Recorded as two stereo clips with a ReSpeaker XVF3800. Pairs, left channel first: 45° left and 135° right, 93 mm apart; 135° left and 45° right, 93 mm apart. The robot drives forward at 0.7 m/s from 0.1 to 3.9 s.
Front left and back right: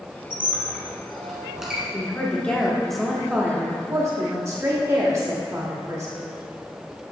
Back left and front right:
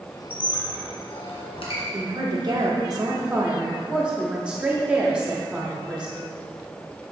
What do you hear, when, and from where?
0.3 s a squeak: 110° left, 1.2 m; by 1.8 s 145° left, 1.9 m
1.9 s a woman speaking: 20° right, 1.4 m; by 6.3 s 115° right, 0.9 m